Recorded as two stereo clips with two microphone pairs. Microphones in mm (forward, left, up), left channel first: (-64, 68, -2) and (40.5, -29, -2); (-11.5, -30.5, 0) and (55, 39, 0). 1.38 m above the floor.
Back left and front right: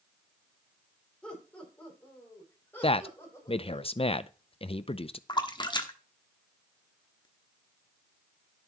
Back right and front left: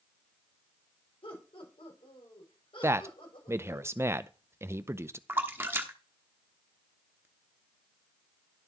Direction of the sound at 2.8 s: 100° left.